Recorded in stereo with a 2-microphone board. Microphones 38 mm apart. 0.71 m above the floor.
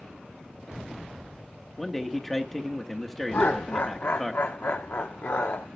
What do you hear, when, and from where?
1.8 s a man speaking: 5° left (ahead or behind), 1.0 m
3.3 s laughter: 65° left (ahead or behind), 1.1 m